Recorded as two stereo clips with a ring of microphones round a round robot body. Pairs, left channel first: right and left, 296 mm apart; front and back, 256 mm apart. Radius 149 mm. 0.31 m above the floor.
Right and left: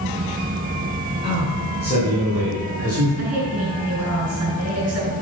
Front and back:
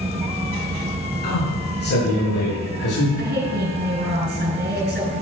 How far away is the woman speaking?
About 4.5 m.